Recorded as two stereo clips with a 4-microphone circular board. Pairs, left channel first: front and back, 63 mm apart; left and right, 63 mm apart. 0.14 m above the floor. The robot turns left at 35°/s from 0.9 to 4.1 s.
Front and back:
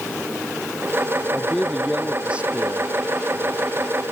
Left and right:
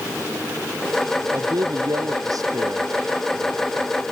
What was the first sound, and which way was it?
A man speaking, 75° right.